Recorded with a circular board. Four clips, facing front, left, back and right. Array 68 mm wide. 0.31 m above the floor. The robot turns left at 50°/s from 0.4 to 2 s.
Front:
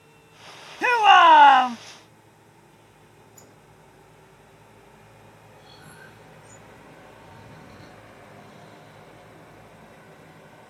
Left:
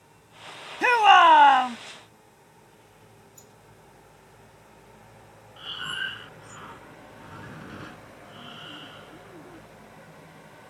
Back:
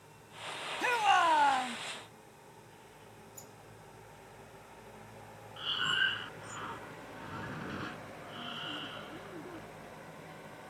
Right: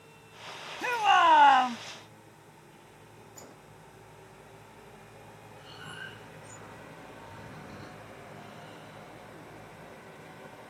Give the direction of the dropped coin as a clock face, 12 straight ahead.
No dropped coin in this recording.